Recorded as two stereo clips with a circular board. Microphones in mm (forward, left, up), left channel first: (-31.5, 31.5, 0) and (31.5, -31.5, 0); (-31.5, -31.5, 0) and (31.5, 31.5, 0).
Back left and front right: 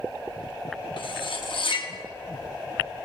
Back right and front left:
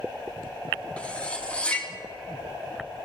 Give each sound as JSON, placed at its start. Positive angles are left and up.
{"t": 1.0, "sound": "cutlery clinking", "azimuth_deg": 150, "distance_m": 0.8}